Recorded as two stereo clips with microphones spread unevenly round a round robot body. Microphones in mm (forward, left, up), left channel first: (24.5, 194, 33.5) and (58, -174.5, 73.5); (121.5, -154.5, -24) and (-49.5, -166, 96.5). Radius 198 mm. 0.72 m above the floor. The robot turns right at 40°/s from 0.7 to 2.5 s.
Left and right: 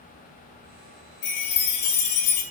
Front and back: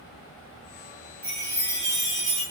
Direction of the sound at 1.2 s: 105° left.